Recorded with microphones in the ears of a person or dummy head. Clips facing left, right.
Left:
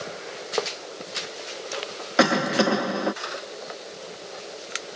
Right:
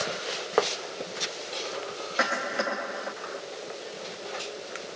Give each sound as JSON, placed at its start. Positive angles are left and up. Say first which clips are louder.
{"t": 2.2, "sound": "a cough", "louder": "left 10 dB", "side_deg": 65}